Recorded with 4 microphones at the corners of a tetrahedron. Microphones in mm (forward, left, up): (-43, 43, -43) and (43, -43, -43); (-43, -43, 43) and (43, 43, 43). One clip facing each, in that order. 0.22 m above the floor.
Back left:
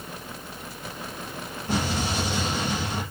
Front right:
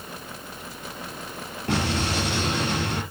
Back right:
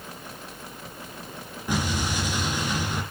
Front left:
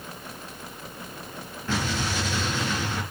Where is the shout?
No shout in this recording.